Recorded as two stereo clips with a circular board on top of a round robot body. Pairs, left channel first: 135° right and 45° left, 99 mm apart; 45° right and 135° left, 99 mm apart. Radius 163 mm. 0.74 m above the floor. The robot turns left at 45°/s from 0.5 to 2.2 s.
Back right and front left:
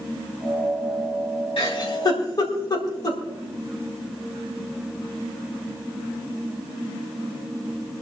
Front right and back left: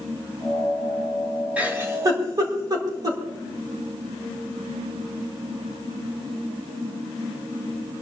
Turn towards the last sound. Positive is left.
turn(degrees=180)